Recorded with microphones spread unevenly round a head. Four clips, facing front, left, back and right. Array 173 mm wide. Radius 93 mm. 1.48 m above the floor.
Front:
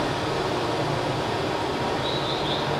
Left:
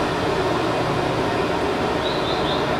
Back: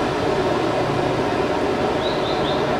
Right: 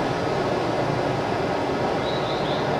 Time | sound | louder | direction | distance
0.0 | running water | left 2 dB, back 6 dB | 150° left | 1.4 m